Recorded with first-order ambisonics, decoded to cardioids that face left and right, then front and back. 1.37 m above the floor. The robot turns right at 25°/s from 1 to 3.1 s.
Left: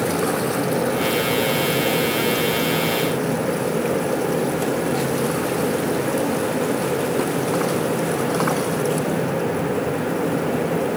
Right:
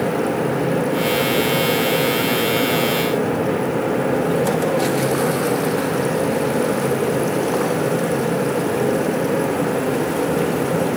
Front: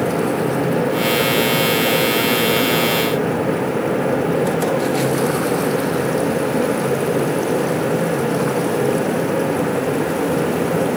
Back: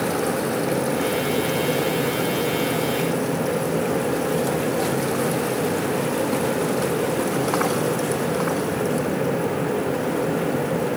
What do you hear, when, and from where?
Only background noise.